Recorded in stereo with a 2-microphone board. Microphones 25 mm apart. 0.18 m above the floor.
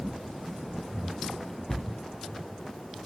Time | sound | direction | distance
1.7 | a cupboard door | 20° left (ahead or behind) | 0.6 m